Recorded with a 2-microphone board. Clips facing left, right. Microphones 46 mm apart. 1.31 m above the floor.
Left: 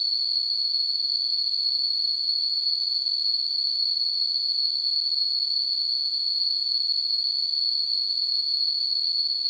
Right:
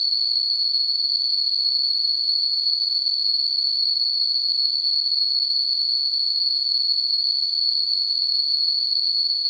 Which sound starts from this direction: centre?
An insect, at 0.0 s.